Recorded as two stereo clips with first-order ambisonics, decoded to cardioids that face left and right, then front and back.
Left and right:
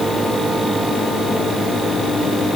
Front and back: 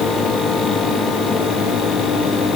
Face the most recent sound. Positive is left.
No sound to turn to.